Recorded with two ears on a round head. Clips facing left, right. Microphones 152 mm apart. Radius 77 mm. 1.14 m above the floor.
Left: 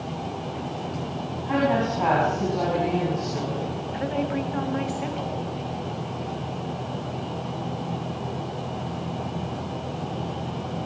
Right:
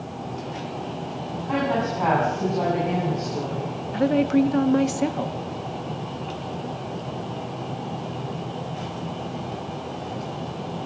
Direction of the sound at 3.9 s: 55° right (ahead or behind).